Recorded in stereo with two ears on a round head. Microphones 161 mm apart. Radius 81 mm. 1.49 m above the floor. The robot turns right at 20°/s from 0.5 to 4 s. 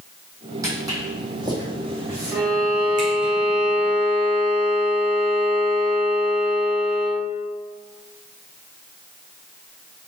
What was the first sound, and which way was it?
Footsteps, 20° right (ahead or behind).